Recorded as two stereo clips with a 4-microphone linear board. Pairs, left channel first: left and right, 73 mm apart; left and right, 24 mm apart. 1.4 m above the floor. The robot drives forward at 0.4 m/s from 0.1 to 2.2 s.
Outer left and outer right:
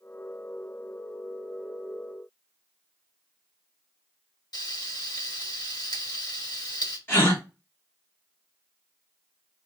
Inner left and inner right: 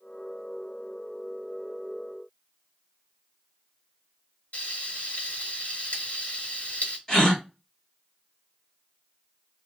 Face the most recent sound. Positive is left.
turn(degrees=30)  # may be behind; listen again after turning